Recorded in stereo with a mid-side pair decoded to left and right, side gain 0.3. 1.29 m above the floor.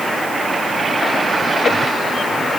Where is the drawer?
I don't hear a drawer.